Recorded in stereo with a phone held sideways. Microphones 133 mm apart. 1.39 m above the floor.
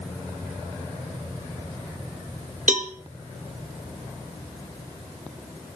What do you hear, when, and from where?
2.7 s a cowbell: 75° right (ahead or behind), 1.5 m